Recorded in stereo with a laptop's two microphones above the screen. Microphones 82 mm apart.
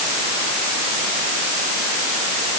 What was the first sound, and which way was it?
Only background noise.